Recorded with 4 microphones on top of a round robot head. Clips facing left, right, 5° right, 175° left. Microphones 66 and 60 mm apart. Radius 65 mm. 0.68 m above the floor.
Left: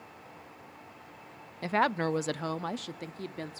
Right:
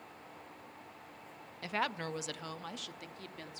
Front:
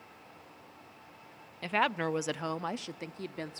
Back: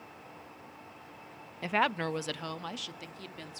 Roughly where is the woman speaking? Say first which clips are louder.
Left 9 dB, even; left.